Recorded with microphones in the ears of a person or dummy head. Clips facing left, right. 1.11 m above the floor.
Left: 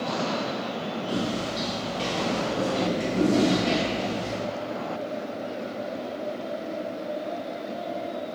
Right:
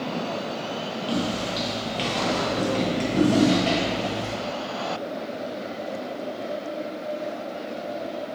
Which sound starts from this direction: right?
Footsteps, at 1.1 s.